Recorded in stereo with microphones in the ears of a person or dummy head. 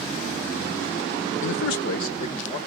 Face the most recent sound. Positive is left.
turn(degrees=40)  # may be behind; listen again after turning